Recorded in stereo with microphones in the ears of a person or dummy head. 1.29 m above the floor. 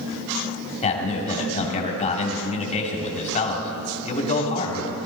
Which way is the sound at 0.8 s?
35° left (ahead or behind).